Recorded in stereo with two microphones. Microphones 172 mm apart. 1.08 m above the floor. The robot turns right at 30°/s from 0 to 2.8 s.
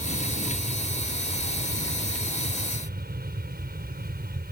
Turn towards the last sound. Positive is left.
turn(degrees=-65)